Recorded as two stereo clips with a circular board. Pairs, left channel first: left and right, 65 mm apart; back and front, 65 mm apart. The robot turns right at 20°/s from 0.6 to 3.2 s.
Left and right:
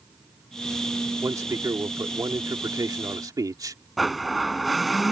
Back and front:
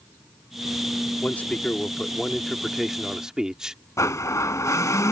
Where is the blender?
Straight behind.